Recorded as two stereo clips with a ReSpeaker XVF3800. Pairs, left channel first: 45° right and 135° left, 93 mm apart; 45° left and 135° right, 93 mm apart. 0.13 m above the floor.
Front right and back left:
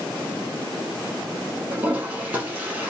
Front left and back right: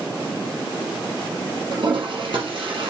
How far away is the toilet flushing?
About 4.5 m.